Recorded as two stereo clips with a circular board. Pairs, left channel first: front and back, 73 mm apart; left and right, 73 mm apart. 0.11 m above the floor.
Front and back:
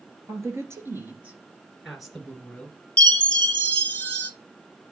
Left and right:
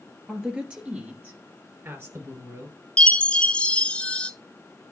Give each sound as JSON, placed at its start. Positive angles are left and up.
{"t": 0.3, "sound": "a woman speaking", "azimuth_deg": -165, "distance_m": 2.5}
{"t": 3.0, "sound": "a chime", "azimuth_deg": 40, "distance_m": 0.8}